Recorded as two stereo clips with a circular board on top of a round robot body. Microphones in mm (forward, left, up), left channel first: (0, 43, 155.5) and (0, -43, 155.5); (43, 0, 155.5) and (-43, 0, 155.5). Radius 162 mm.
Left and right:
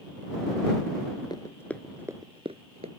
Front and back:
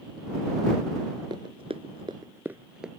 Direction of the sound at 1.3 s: 135° left.